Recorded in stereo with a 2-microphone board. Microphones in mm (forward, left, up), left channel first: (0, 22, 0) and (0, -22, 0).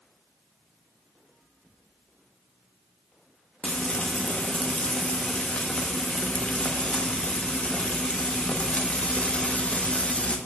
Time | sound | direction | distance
3.6 | frying | 30° left (ahead or behind) | 0.7 m